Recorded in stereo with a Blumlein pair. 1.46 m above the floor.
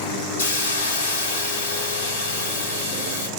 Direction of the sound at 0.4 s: 65° left.